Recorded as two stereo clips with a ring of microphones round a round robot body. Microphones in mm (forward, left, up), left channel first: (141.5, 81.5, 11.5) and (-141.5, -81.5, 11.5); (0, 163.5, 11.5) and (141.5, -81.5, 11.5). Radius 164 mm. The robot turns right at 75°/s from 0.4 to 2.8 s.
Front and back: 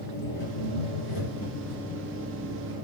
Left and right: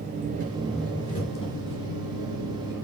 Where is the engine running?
Straight ahead, 5.5 m; by 2.9 s straight behind, 5.5 m.